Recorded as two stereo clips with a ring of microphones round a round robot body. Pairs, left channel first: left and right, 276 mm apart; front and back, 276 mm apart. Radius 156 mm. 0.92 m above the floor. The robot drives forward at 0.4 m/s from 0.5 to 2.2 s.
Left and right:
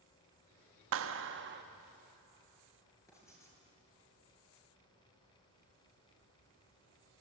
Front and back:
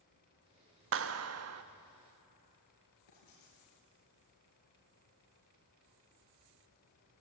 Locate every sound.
0.9 s a clap: 135° right, 0.8 m; by 1.6 s 150° right, 1.1 m
3.1 s writing: 10° left, 8.5 m